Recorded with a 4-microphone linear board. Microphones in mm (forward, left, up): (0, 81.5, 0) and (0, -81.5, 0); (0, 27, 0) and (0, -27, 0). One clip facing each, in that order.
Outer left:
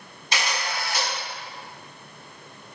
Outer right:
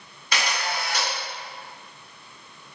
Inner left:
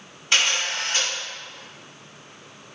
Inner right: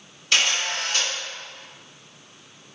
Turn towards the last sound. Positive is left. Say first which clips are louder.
# outer right 1 dB, even
turn(degrees=25)  # may be behind; listen again after turning